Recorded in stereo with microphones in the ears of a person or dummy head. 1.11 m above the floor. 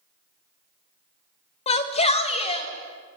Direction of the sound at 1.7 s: 30° left (ahead or behind).